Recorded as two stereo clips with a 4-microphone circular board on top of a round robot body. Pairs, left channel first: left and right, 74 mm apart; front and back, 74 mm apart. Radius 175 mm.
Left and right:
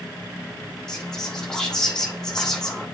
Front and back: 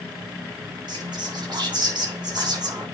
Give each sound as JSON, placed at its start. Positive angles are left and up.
{"t": 0.9, "sound": "whispering", "azimuth_deg": 170, "distance_m": 3.0}